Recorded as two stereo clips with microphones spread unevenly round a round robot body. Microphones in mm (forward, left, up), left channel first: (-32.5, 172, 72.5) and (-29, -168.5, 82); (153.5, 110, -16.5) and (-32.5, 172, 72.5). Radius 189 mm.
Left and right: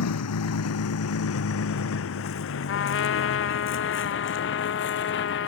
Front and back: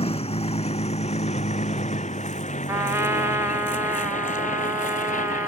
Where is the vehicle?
45° left; by 5.5 s 30° left.